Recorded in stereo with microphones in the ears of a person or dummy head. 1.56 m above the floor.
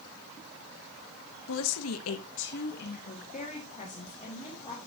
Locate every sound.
1.5 s a woman speaking: 70° left (ahead or behind), 0.9 m; by 4.9 s 20° left (ahead or behind), 3 m